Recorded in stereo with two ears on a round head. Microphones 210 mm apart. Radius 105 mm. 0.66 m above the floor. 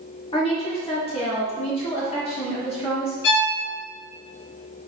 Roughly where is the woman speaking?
Left.